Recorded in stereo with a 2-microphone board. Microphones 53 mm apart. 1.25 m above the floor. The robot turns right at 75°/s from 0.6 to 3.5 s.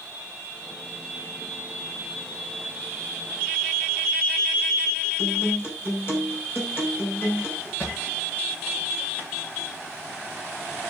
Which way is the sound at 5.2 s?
50° left (ahead or behind).